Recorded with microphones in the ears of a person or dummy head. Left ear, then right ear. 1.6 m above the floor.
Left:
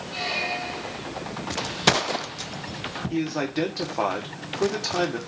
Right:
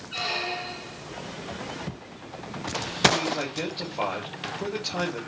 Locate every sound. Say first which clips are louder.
0.1 s a squeak: left 1 dB; 5° right (ahead or behind), 1.4 m
3.1 s a man speaking: even; 55° left (ahead or behind), 3 m